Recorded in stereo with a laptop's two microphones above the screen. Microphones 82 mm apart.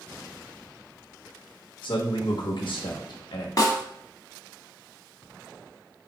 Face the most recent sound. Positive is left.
turn(degrees=45)  # may be behind; listen again after turning